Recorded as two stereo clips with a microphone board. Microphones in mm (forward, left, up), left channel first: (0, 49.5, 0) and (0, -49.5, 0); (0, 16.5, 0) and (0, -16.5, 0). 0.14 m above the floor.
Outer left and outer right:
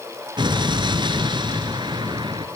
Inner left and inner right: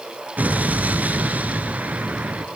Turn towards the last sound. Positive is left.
turn(degrees=-55)  # may be behind; listen again after turning